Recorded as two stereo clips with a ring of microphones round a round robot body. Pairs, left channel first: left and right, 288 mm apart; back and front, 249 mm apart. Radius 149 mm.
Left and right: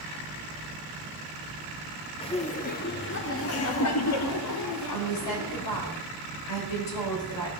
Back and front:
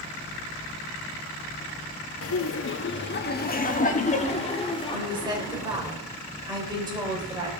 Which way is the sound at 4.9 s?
70° left.